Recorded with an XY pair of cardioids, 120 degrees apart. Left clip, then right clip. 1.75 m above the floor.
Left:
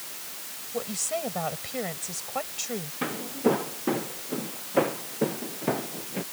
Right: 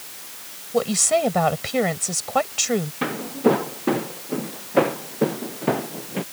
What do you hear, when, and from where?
0.7 s a woman speaking: 55° right
3.0 s footsteps: 30° right